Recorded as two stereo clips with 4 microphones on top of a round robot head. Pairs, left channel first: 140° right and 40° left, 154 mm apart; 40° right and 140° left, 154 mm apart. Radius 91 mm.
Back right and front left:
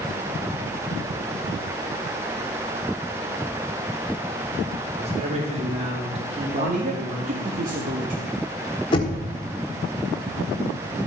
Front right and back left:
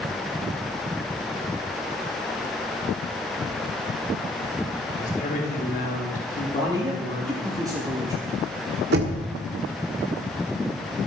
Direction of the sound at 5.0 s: 5° right.